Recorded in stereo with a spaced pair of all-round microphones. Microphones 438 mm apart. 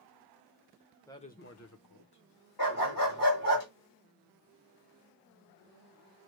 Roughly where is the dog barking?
Left.